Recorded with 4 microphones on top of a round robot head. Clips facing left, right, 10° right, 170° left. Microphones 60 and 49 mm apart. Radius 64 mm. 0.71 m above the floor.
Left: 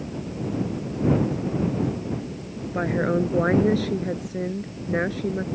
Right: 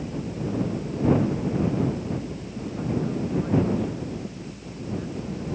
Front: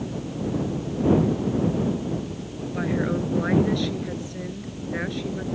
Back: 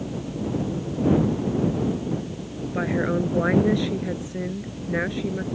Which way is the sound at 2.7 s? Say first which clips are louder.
Left 6 dB, back 2 dB; 100° left.